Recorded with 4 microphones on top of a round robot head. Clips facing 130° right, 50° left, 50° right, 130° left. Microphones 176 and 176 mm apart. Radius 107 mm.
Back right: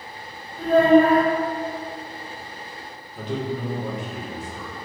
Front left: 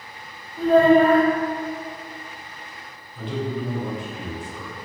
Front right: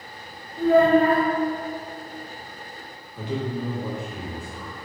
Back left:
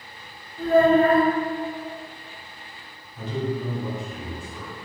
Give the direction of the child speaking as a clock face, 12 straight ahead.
12 o'clock.